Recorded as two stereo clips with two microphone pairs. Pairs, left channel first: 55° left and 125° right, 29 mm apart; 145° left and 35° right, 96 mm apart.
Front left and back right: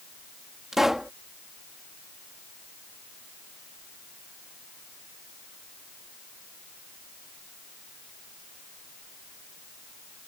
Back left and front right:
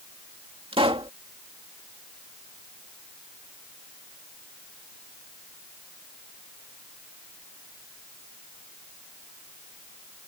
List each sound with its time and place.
0.7 s a pop: 50° right